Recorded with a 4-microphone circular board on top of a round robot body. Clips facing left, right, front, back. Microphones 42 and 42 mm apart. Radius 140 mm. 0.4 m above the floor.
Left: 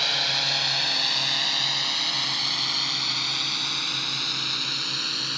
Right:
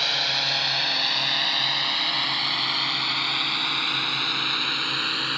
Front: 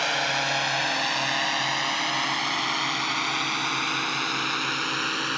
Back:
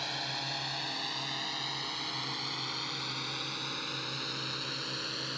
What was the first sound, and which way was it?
A drone, straight ahead.